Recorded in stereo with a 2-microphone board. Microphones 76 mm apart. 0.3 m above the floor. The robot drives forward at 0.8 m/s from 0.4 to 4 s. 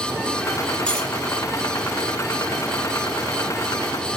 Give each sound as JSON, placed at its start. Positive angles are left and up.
{"t": 0.9, "sound": "cutlery clinking", "side_deg": 15, "distance_m": 4.0}